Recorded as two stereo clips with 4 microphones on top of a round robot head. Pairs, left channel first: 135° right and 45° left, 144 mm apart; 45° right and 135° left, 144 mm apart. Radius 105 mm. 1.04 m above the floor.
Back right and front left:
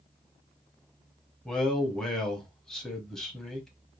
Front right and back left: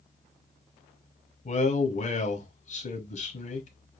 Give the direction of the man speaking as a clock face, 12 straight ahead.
2 o'clock.